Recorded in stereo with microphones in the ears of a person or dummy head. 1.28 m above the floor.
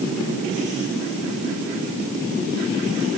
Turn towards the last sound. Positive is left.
No sound to turn to.